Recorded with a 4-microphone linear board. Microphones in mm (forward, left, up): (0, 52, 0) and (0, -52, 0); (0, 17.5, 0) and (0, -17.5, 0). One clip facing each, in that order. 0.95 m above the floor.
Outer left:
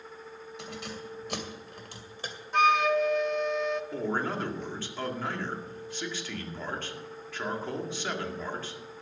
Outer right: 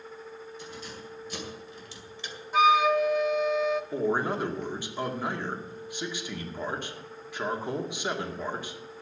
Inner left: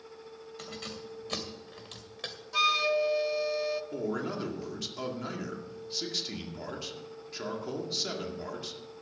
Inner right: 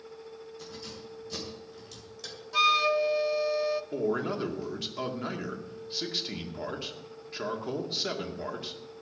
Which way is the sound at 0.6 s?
85° left.